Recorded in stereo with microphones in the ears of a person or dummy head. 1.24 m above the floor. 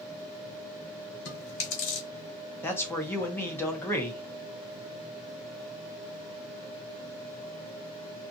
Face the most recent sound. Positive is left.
turn(degrees=10)  # may be behind; listen again after turning